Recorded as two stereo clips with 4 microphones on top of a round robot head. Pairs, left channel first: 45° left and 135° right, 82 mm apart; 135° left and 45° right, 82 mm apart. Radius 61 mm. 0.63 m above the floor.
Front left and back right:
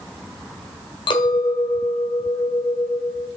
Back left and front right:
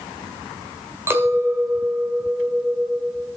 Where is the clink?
15° left, 1.3 m.